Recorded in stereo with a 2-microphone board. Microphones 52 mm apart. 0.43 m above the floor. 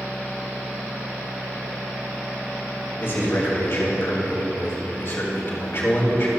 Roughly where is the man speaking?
Left.